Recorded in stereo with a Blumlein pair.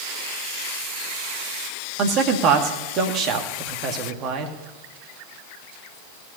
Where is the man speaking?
35° right, 2 m.